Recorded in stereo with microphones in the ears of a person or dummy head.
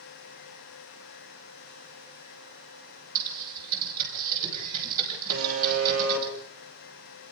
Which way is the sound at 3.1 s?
50° right (ahead or behind).